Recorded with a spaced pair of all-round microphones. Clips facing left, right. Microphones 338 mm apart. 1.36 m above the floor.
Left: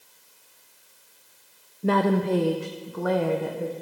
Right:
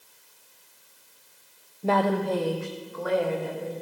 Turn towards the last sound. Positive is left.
turn(degrees=65)  # may be behind; listen again after turning